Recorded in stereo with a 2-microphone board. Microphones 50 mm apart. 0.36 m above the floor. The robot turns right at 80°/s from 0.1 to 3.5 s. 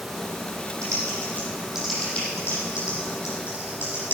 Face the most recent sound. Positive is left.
turn(degrees=50)  # may be behind; listen again after turning